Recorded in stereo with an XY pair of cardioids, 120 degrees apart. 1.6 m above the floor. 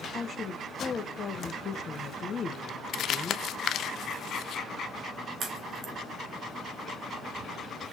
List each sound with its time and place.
0.1 s a woman speaking: 35° left, 1.2 m
2.9 s crumpling: 60° left, 0.6 m
5.4 s a crack: 45° right, 3.5 m